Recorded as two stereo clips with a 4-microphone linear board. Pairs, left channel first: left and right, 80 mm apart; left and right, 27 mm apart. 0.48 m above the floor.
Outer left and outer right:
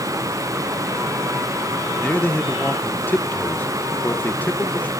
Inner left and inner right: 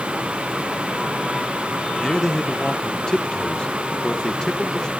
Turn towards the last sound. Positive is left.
turn(degrees=20)  # may be behind; listen again after turning